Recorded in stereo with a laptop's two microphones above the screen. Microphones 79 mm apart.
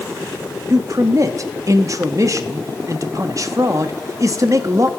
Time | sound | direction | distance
0.7 | a man speaking | 45° right (ahead or behind) | 1.1 m